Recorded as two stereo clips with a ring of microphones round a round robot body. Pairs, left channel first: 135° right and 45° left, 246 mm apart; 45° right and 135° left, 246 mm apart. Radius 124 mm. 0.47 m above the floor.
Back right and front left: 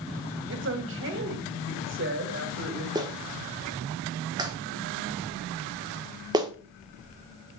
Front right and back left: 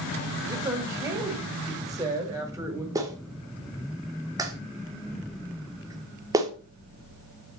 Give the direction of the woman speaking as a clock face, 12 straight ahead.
10 o'clock.